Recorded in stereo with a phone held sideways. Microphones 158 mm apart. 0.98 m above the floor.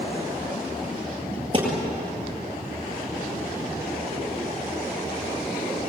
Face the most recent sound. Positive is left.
turn(degrees=-35)  # may be behind; listen again after turning